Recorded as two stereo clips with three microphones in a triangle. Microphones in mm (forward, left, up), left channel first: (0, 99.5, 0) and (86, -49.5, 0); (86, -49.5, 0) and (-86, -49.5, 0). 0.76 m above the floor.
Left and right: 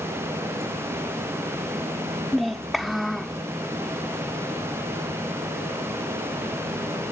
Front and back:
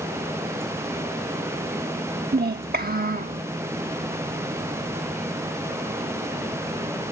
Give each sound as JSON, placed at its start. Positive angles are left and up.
{"t": 2.3, "sound": "a child speaking", "azimuth_deg": -150}